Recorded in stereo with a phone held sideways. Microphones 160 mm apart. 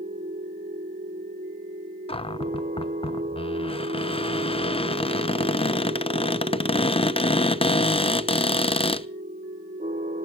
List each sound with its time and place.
0.0 s a machine running: 60° right (ahead or behind), 0.8 m
2.1 s a cupboard door: 35° left (ahead or behind), 0.6 m